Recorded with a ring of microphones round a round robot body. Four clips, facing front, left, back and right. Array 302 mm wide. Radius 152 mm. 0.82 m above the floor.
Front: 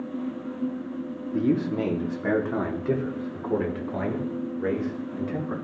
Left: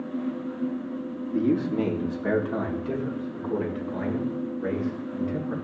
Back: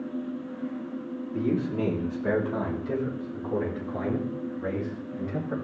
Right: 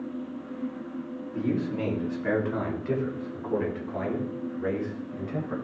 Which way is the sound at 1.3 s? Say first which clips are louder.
Left 5 dB, front 3 dB; 35° left.